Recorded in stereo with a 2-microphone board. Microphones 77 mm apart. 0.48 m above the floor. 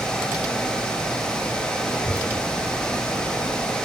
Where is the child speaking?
50° left (ahead or behind), 0.9 m; by 3.7 s 65° right (ahead or behind), 1.4 m.